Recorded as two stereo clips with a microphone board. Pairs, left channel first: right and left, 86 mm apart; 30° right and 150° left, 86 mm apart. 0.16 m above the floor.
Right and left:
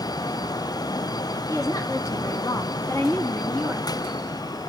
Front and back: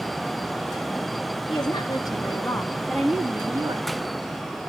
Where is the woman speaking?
45° right, 3 m; by 3.9 s 175° left, 1.9 m.